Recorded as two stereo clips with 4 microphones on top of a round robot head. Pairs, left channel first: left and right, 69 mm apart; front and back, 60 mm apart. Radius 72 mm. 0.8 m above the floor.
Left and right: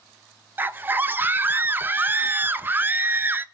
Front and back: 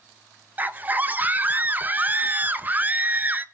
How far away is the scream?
About 0.6 m.